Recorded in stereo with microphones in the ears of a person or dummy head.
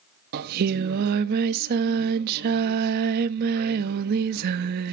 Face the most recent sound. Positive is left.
turn(degrees=-55)  # may be behind; listen again after turning